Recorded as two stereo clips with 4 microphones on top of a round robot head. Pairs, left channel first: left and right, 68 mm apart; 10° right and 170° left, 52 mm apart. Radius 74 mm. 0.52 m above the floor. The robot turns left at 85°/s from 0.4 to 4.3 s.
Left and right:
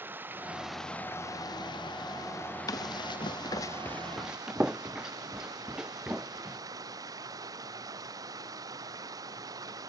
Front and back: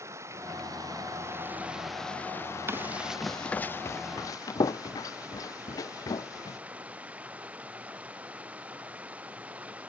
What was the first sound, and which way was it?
Running water, 150° right.